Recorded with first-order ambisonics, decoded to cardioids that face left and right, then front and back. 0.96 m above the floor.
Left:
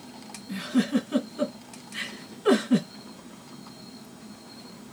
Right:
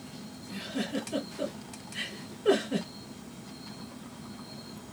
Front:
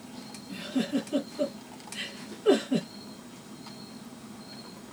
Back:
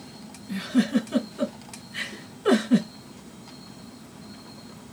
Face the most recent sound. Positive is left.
turn(degrees=140)